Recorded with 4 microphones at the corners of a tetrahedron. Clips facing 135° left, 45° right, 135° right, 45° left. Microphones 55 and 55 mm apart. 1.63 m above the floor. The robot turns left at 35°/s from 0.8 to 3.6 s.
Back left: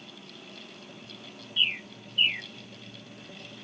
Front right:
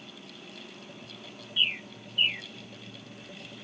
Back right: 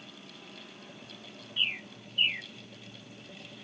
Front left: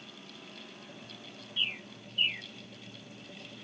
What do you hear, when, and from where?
1.6 s a bird: 145° right; by 2.5 s 175° right